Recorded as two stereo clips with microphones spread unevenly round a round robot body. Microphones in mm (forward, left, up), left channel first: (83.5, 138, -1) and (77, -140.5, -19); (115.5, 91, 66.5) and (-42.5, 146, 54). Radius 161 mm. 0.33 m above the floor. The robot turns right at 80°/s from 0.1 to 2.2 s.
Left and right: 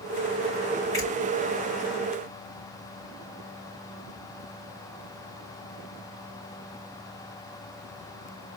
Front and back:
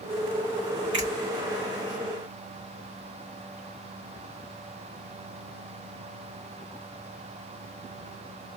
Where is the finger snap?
165° left, 3.5 m; by 1.1 s straight behind, 3.5 m.